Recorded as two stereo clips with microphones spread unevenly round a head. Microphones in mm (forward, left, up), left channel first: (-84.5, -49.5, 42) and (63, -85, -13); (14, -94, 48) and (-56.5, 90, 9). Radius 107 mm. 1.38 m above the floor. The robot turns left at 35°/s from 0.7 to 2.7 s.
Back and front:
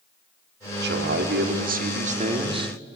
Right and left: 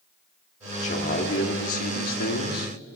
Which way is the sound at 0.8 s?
10° right.